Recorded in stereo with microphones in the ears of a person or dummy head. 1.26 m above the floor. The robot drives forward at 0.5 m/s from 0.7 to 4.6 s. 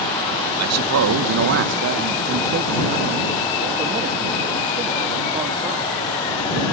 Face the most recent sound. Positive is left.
turn(degrees=-25)  # may be behind; listen again after turning